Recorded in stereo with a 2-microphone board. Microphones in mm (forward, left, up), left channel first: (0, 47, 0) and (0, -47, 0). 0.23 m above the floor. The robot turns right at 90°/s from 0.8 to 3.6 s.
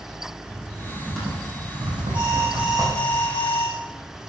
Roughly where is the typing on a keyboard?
Left.